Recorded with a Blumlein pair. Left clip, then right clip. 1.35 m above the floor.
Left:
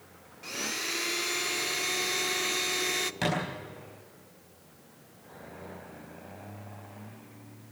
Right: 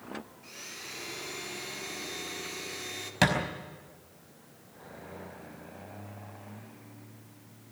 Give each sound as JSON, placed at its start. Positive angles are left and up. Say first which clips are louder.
{"t": 0.4, "sound": "a blender", "louder": "left 10 dB", "azimuth_deg": 65, "distance_m": 0.7}
{"t": 3.2, "sound": "a thud", "louder": "right 7 dB", "azimuth_deg": -25, "distance_m": 4.5}